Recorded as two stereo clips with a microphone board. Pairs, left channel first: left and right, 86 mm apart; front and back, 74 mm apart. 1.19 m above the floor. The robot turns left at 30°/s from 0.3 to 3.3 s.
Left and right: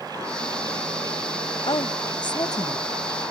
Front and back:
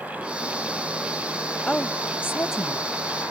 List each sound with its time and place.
1.7 s a woman speaking: 80° left; by 2.9 s 40° left